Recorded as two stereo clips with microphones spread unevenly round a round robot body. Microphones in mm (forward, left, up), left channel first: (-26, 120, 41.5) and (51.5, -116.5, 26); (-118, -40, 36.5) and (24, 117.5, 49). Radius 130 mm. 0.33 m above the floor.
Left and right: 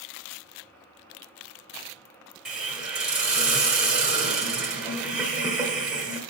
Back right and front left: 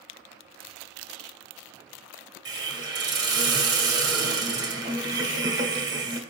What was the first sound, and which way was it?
A hiss, straight ahead.